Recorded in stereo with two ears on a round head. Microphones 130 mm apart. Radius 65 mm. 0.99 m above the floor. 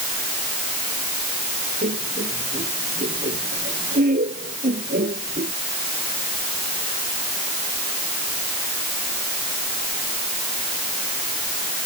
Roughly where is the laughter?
Right.